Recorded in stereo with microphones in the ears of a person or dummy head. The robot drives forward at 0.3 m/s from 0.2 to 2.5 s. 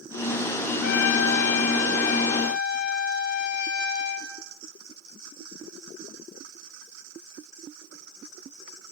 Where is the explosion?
No explosion in this recording.